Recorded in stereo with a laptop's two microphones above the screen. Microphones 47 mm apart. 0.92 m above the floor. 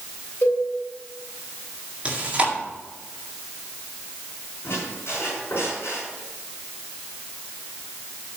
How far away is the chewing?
About 1.9 m.